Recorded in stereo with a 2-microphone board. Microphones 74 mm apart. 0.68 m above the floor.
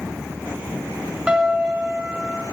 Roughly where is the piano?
Centre.